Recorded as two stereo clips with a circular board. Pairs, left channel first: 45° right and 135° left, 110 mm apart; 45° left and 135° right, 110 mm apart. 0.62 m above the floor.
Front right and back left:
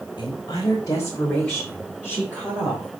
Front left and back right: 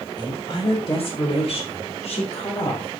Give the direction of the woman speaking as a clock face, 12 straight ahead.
12 o'clock.